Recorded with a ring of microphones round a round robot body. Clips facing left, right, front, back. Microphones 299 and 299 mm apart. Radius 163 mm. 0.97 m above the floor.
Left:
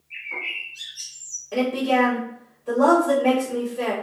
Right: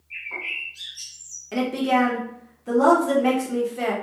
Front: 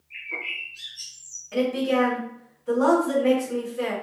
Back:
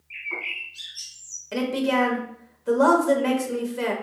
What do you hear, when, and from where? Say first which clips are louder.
0.1 s a bird: even, back 2 dB; 150° right, 2 m
1.5 s a woman speaking: left 1 dB, front 1 dB; 145° right, 1.2 m